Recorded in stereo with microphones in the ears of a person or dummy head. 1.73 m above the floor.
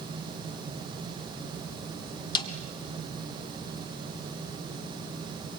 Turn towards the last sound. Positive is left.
turn(degrees=25)  # may be behind; listen again after turning